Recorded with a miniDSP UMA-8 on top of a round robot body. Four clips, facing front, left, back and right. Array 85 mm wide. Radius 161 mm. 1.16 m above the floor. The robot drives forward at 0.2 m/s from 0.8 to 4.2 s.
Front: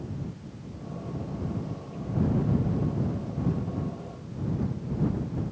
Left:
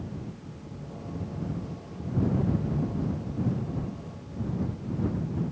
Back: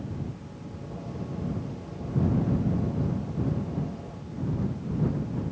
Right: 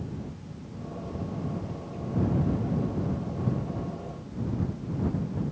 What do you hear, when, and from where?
Only background noise.